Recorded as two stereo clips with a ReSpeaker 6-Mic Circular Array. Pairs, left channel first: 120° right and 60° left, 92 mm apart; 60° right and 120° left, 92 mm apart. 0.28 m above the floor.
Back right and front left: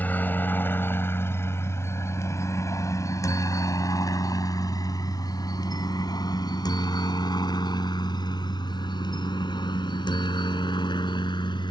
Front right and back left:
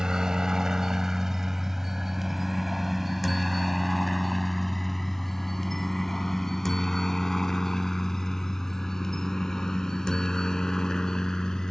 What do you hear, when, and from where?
0.0 s a helicopter: 165° right; by 11.7 s 140° right